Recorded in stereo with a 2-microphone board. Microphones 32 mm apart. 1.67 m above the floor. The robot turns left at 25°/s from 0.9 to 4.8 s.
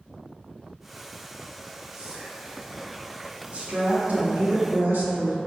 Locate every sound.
1.9 s whispering: 15° right (ahead or behind), 0.9 m; by 2.6 s 30° right (ahead or behind), 0.9 m
3.5 s a woman speaking: 35° right, 0.8 m; by 5.4 s 70° right, 0.8 m